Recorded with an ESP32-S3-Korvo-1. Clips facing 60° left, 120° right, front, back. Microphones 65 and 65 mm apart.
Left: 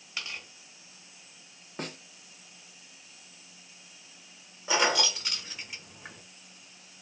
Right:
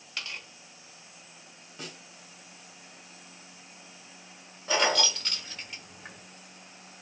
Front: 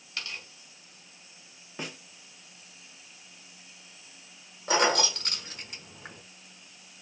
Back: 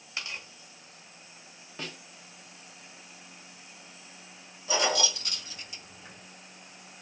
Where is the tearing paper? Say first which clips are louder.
Even, back 1 dB; 135° left, 1.3 m.